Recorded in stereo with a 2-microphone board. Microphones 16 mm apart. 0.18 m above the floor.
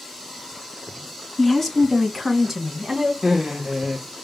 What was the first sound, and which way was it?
A woman speaking, 20° left (ahead or behind).